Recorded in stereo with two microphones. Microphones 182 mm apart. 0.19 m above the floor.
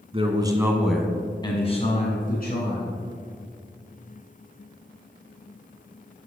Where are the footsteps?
No footsteps in this recording.